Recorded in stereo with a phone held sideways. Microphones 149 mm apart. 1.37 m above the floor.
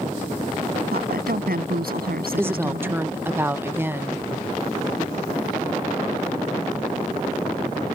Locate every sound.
0.9 s a woman speaking: 85° right
2.4 s a woman speaking: 15° right (ahead or behind)